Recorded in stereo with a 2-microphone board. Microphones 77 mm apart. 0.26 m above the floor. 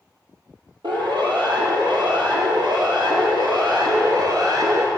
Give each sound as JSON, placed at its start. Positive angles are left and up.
{"t": 0.8, "sound": "a siren", "side_deg": -80, "distance_m": 8.5}